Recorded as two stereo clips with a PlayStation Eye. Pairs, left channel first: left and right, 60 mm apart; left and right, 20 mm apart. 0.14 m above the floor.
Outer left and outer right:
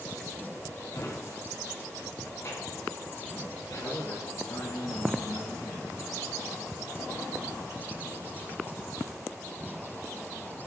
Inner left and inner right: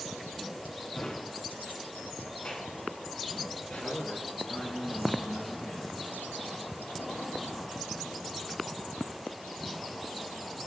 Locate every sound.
0.9 s a drawer: 45° left (ahead or behind), 6.5 m
3.8 s a man speaking: 75° left (ahead or behind), 7.5 m